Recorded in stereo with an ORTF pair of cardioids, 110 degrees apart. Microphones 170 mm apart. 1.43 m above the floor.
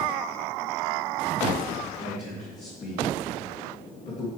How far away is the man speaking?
About 2.5 m.